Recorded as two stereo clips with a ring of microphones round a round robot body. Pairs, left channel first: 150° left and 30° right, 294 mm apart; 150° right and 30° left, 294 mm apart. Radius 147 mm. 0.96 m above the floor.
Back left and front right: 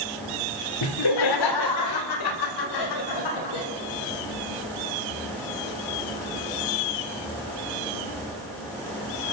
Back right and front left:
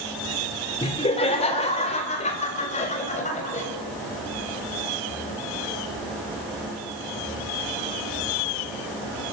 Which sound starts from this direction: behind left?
Laughter, at 0.8 s.